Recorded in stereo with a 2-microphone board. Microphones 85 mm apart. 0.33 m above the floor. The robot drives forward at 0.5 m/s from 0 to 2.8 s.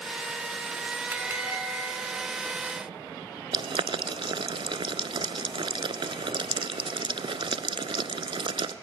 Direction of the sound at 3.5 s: 85° right.